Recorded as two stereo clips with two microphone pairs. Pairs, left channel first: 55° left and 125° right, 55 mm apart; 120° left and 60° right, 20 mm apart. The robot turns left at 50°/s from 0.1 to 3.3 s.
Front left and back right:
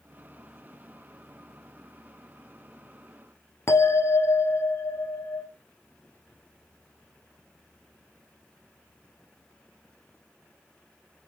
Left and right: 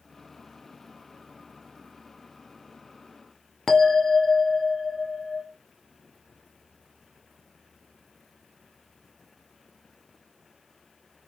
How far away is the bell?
About 0.7 m.